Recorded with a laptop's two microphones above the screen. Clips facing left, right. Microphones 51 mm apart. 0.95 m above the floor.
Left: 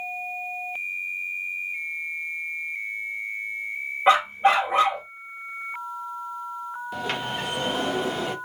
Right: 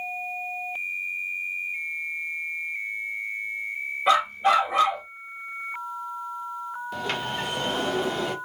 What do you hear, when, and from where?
4.1 s a dog barking: 30° left (ahead or behind), 0.9 m
6.9 s a sliding door: 5° left (ahead or behind), 0.7 m